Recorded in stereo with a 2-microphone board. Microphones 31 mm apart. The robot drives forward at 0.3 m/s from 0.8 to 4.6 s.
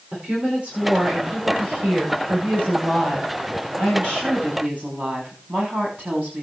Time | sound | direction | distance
0.1 | a woman speaking | 45° right (ahead or behind) | 9.5 m